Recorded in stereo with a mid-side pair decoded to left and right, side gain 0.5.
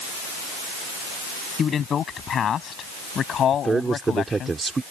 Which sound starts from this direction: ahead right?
A man speaking, at 3.5 s.